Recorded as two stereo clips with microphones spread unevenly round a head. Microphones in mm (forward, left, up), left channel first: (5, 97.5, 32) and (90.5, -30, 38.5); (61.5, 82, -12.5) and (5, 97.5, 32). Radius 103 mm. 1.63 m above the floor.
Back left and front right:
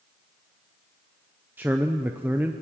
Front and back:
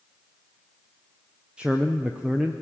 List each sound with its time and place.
1.6 s a man speaking: 135° right, 0.7 m